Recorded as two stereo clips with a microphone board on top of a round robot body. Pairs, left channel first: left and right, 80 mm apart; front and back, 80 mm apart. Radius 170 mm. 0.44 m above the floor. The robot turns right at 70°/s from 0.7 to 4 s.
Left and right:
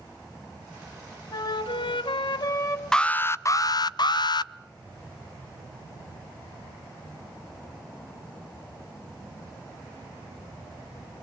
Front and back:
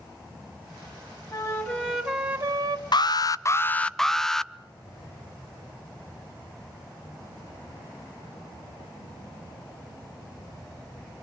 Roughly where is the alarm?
Ahead.